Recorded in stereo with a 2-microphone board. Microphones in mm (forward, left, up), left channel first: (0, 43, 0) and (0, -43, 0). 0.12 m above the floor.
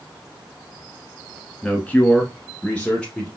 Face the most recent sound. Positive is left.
turn(degrees=10)  # may be behind; listen again after turning